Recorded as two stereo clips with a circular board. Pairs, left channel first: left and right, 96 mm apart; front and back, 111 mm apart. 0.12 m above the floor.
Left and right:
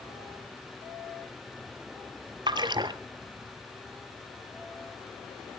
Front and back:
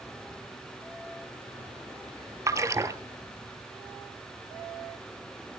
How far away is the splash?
About 0.8 m.